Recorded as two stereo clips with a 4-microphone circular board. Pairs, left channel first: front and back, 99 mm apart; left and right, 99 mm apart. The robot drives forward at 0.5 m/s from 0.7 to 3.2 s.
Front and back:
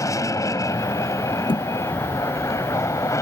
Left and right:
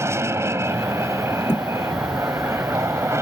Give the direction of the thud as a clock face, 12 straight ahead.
11 o'clock.